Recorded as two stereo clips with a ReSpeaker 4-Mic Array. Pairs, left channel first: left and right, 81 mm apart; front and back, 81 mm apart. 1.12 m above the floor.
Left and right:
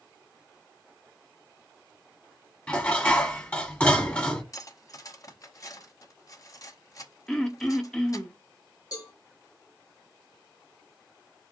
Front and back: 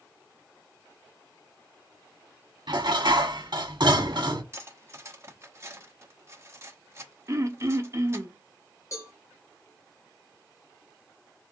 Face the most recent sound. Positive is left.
turn(degrees=50)